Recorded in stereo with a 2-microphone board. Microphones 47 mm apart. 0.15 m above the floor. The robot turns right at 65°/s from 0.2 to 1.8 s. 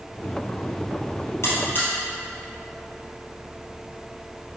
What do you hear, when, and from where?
1.4 s a buzzer: 65° left (ahead or behind), 2.5 m; by 1.9 s 45° left (ahead or behind), 2.5 m